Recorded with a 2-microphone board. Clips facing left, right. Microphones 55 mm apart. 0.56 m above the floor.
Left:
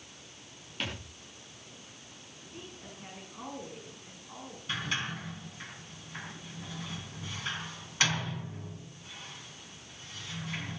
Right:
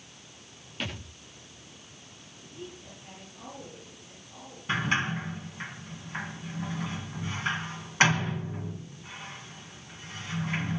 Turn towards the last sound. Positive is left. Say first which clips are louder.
# right 7 dB
turn(degrees=-35)  # may be behind; listen again after turning